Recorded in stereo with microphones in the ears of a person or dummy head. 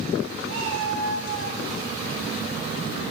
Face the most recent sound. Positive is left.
turn(degrees=-75)  # may be behind; listen again after turning